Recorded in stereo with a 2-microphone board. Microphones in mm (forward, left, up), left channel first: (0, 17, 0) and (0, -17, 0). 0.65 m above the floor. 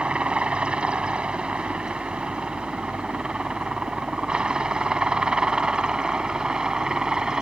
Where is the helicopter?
35° right (ahead or behind); by 7.4 s 20° right (ahead or behind).